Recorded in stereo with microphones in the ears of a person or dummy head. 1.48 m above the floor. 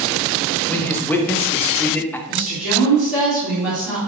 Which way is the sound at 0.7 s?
15° left (ahead or behind).